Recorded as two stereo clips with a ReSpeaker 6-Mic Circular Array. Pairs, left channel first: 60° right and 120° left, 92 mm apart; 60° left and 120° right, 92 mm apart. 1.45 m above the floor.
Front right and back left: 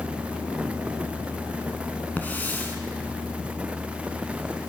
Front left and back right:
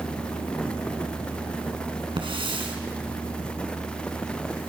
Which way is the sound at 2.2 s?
130° right.